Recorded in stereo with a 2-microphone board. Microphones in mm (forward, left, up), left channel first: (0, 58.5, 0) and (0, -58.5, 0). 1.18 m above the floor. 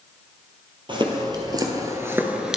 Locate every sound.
0.9 s footsteps: 40° right (ahead or behind), 1.8 m; by 2.6 s 5° right (ahead or behind), 1.1 m